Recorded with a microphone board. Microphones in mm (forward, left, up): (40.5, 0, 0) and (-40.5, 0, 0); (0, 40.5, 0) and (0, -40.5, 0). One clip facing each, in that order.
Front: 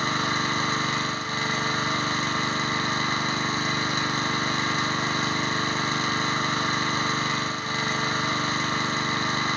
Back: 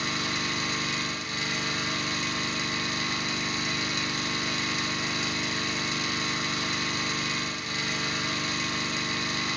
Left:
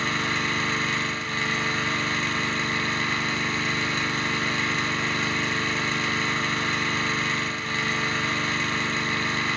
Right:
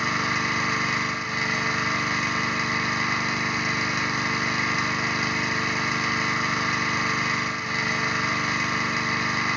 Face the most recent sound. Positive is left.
turn(degrees=-15)